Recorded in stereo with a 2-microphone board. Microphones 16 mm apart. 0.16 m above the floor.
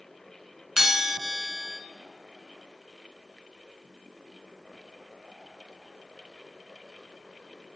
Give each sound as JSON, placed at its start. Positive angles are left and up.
{"t": 0.8, "sound": "a bell", "side_deg": -25, "distance_m": 0.8}